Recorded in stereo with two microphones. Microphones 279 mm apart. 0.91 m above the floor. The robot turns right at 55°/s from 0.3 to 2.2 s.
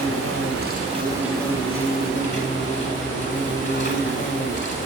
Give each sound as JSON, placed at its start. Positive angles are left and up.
{"t": 0.0, "sound": "an insect", "azimuth_deg": -60, "distance_m": 6.0}